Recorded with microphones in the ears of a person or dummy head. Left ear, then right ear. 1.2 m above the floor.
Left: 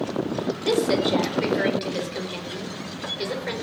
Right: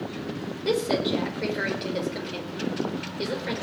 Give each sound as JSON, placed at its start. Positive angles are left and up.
{"t": 0.7, "sound": "a woman speaking", "side_deg": 10, "distance_m": 4.5}